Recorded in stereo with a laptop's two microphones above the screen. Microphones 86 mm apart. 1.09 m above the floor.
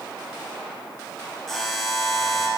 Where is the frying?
No frying in this recording.